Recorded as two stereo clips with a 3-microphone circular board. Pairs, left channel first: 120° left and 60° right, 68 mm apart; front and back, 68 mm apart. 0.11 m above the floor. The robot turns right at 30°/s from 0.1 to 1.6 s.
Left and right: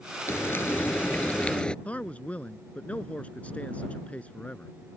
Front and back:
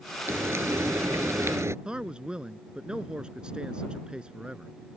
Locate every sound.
0.3 s frying: 150° left; by 1.8 s 170° right
1.9 s a man speaking: 130° left